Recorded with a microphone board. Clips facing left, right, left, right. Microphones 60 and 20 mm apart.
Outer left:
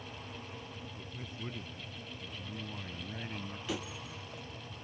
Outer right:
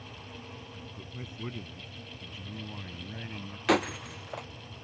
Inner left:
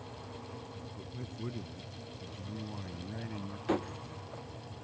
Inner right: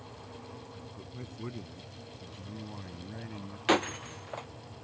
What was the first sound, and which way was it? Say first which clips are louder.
A man speaking: outer right 2 dB, even; 25° right (ahead or behind).